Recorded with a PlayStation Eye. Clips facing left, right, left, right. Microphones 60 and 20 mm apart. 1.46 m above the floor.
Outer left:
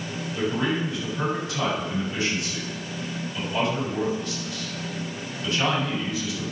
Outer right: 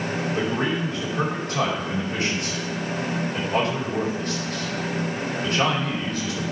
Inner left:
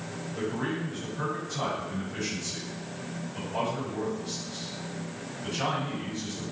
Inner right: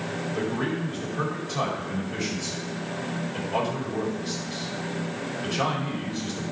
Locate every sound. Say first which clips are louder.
0.3 s a man speaking: outer left 1 dB, inner right 2 dB; 40° right (ahead or behind), 5 m